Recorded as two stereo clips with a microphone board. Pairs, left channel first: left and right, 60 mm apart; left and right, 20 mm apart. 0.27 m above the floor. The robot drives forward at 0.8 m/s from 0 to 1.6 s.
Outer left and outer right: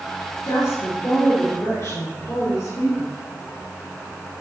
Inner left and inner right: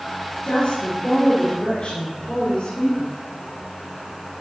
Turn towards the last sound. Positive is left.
turn(degrees=70)  # may be behind; listen again after turning